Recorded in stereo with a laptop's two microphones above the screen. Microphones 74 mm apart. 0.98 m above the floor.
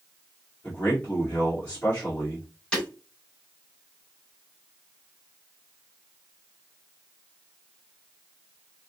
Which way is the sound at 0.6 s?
25° left (ahead or behind).